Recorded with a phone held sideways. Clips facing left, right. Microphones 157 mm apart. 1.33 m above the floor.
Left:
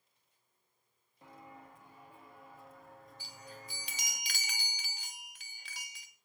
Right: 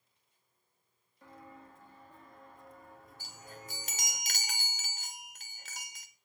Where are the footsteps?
20° left (ahead or behind), 2 m; by 4.2 s 20° right (ahead or behind), 1.5 m.